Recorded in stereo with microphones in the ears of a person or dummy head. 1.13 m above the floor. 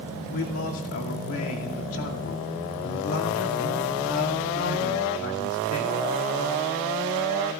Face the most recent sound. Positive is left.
turn(degrees=75)  # may be behind; listen again after turning